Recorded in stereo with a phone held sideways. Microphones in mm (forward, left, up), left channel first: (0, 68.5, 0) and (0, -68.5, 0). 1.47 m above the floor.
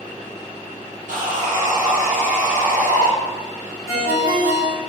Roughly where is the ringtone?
Right.